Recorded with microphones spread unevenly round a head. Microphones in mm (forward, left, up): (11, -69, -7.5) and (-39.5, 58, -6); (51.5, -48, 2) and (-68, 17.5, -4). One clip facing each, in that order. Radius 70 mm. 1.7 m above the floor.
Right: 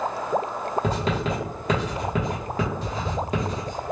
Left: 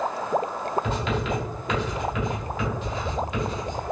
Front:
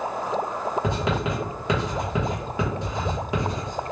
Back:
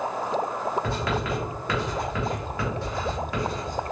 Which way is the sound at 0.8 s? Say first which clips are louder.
Right 2 dB, front 2 dB; 80° right.